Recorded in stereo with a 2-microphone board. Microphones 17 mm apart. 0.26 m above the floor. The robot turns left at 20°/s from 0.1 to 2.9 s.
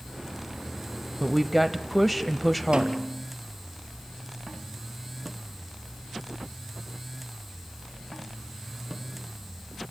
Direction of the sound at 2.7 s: 80° right.